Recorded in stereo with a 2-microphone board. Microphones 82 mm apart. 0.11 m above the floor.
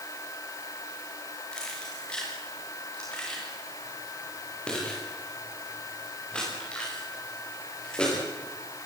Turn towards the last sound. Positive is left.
turn(degrees=15)  # may be behind; listen again after turning